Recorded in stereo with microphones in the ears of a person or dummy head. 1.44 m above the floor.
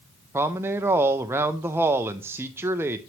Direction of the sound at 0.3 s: 10° right (ahead or behind).